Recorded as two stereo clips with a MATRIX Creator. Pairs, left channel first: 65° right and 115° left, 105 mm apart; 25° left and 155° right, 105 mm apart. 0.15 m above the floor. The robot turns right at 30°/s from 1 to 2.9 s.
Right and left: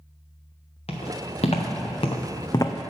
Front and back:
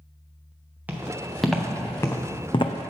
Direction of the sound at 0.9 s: 85° right.